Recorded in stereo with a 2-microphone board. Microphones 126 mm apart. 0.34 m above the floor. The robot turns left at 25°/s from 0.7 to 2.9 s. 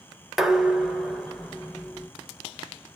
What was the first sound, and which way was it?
Dishes clattering, 5° right (ahead or behind).